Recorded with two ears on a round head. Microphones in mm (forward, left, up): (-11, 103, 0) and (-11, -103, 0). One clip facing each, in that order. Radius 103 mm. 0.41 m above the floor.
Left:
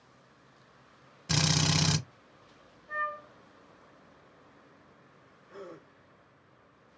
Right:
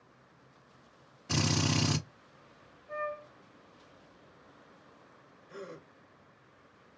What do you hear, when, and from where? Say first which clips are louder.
1.3 s a drill: even; 45° left (ahead or behind), 1.3 m
2.9 s a flute: right 5 dB; 50° left (ahead or behind), 1.2 m
5.5 s a gasp: even; 40° right (ahead or behind), 0.9 m